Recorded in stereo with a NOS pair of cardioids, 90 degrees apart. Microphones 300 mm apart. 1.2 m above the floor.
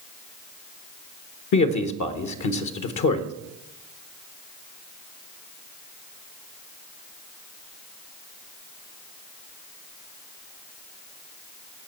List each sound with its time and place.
1.5 s a man speaking: 70° left, 1.1 m